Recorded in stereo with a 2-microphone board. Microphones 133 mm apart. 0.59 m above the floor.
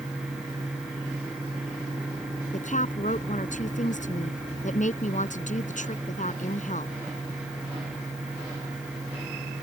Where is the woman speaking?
70° left (ahead or behind).